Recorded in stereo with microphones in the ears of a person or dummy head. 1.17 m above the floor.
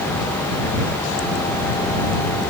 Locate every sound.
Only background noise.